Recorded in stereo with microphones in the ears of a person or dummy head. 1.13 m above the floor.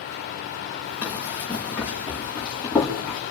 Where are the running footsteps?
10° right (ahead or behind), 5 m; by 3.2 s centre (ahead or behind), 6 m.